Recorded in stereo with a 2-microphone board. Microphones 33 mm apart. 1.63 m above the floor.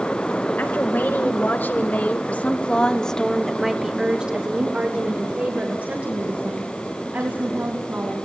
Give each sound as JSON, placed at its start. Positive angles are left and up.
{"t": 0.6, "sound": "a woman speaking", "side_deg": 70, "distance_m": 2.0}